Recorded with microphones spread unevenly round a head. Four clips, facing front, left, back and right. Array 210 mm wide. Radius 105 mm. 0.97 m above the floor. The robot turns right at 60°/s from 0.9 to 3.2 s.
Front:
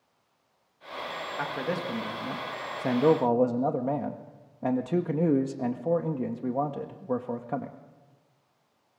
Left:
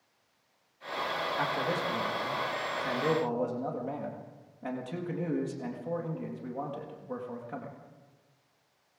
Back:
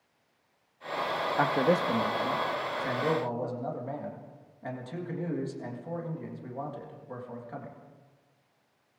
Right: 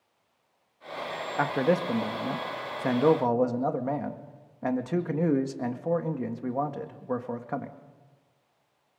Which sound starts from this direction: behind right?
A man speaking, at 1.4 s.